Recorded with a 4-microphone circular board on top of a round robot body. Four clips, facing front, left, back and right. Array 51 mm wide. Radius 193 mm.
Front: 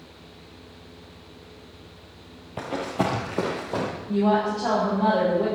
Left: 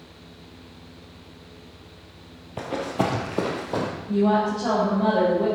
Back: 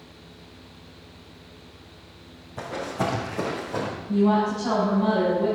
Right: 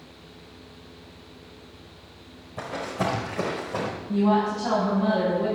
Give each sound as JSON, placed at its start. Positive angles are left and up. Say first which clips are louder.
{"t": 2.6, "sound": "running footsteps", "louder": "left 3 dB, front 2 dB", "azimuth_deg": 45, "distance_m": 1.9}
{"t": 4.1, "sound": "a woman speaking", "louder": "left 1 dB, back 1 dB", "azimuth_deg": 35, "distance_m": 5.0}